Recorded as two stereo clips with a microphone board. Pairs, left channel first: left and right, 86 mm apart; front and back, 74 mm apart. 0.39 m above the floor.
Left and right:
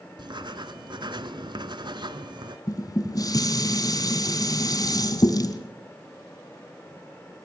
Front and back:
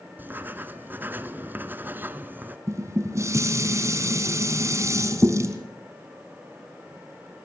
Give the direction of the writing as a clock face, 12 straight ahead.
4 o'clock.